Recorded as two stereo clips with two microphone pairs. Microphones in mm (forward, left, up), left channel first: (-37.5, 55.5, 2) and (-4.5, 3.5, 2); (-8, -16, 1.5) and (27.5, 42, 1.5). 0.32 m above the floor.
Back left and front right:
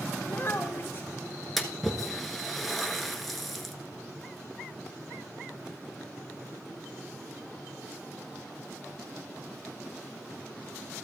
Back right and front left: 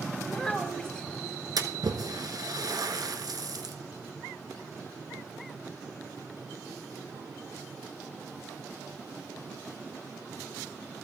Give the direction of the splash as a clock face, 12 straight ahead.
11 o'clock.